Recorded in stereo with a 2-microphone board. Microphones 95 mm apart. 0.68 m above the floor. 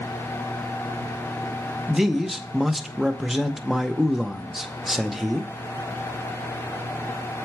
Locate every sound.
1.9 s a man speaking: centre (ahead or behind), 0.5 m